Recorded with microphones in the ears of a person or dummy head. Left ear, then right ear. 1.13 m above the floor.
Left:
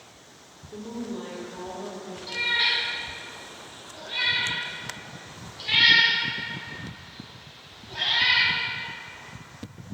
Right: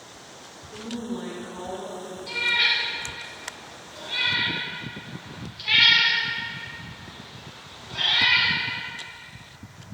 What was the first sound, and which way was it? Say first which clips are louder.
A woman speaking: right 1 dB; 35° left (ahead or behind).